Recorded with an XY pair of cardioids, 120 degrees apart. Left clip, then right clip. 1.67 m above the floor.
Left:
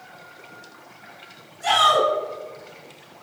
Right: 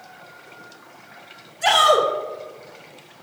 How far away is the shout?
About 3 m.